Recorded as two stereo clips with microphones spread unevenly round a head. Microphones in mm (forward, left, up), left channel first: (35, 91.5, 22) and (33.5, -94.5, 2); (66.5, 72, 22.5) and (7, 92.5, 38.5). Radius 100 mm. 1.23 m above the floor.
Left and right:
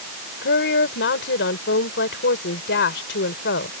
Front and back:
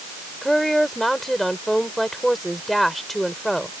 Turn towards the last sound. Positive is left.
turn(degrees=70)